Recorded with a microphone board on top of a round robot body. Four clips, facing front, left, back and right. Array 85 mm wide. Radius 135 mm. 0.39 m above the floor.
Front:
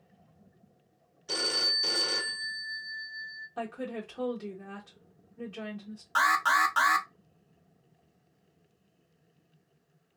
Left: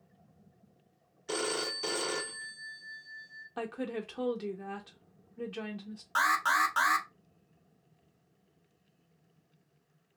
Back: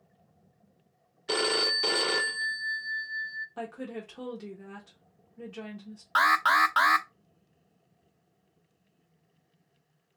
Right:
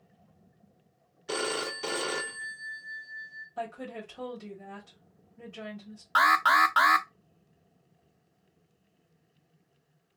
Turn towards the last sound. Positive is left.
turn(degrees=-140)